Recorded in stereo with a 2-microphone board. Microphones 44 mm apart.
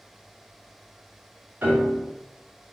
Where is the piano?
45° right (ahead or behind), 1.3 m.